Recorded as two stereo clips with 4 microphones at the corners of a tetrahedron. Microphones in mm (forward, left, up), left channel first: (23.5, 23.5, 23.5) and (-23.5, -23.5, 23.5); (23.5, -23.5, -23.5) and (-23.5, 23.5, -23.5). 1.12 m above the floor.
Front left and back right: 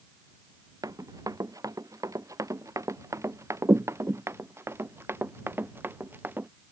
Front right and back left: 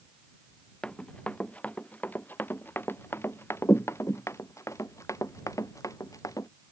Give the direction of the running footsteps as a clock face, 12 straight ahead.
4 o'clock.